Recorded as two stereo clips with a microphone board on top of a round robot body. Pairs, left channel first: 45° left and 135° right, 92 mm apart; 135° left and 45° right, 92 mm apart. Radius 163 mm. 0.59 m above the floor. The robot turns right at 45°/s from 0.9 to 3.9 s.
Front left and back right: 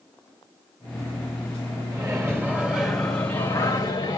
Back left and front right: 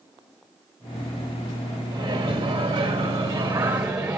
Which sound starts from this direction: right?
A microwave, at 1.9 s.